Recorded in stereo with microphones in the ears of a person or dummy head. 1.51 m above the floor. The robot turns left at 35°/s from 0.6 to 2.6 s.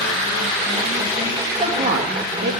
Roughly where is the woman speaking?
Right.